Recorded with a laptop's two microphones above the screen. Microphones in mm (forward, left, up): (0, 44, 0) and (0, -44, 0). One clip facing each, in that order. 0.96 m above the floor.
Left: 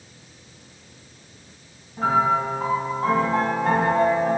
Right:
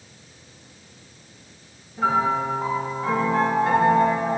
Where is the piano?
60° left (ahead or behind), 3 m.